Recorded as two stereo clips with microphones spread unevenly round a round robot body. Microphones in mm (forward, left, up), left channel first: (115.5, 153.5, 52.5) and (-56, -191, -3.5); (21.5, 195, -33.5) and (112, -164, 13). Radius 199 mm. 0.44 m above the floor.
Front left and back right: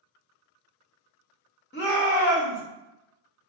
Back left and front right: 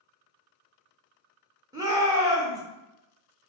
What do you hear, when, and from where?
1.7 s a shout: 10° left, 0.8 m